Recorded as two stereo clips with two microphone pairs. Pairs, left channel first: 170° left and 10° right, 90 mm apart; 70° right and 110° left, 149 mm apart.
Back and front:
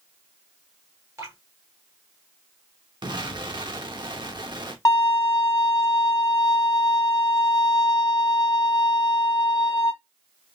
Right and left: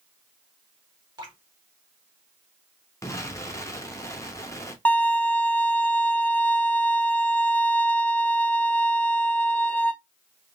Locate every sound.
1.2 s dripping: 45° left, 1.5 m
3.0 s an explosion: 5° right, 0.8 m
4.8 s a violin: 145° right, 0.5 m